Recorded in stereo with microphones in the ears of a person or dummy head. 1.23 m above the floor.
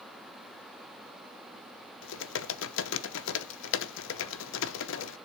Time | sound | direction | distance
2.0 | typing on a keyboard | 70° left (ahead or behind) | 0.7 m